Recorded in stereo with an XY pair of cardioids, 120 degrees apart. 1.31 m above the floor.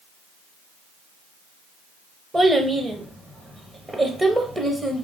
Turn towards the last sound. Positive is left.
turn(degrees=-15)